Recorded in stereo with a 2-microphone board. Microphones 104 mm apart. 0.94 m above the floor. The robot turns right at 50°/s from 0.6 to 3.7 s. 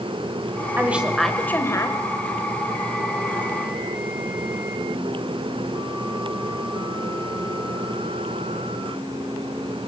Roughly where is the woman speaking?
Ahead.